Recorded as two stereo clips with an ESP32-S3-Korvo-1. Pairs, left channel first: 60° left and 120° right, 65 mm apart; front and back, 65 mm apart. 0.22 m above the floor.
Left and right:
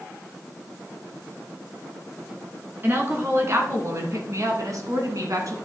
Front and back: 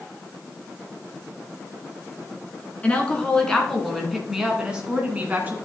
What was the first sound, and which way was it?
A woman speaking, 70° right.